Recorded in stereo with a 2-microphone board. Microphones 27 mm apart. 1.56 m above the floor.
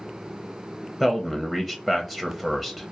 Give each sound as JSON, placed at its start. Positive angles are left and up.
{"t": 1.0, "sound": "a man speaking", "side_deg": 10, "distance_m": 0.5}